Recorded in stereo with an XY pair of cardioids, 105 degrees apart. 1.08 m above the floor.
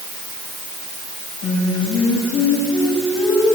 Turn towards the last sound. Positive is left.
turn(degrees=70)